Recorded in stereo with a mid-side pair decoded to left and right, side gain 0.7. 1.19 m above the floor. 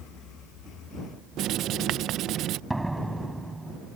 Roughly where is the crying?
I don't hear crying.